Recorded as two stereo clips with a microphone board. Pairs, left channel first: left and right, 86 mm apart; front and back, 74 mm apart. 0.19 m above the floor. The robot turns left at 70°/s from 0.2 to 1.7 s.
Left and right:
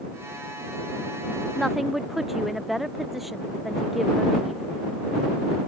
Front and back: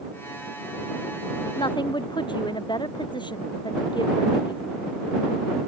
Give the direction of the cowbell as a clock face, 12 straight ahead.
No cowbell in this recording.